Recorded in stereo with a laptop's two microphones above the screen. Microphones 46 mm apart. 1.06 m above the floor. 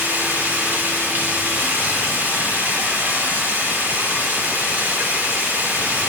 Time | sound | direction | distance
0.0 | running water | 45° right (ahead or behind) | 1.5 m